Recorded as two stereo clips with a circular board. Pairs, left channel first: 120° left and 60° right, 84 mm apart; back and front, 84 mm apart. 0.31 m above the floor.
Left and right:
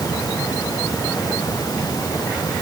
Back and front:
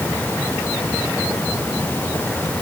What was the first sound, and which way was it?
Only background noise.